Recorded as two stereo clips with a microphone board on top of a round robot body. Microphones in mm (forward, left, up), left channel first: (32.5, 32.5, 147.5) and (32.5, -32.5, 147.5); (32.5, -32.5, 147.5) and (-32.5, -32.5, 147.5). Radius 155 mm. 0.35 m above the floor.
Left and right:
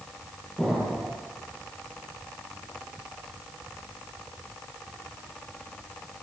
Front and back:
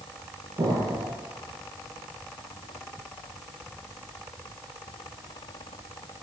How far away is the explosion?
About 8.5 m.